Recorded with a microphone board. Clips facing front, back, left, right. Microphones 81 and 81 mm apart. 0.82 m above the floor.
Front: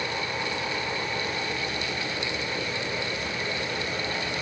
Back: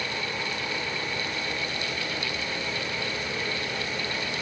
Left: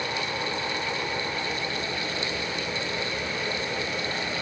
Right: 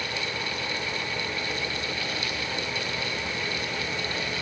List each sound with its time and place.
Only background noise.